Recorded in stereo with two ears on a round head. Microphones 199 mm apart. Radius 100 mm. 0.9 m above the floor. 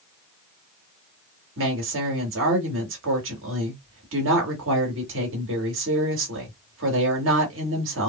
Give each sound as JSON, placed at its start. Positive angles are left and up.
{"t": 1.6, "sound": "a woman speaking", "side_deg": -60, "distance_m": 1.7}